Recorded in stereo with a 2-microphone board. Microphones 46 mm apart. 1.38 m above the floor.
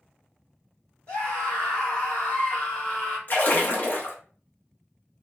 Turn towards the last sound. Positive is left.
turn(degrees=40)  # may be behind; listen again after turning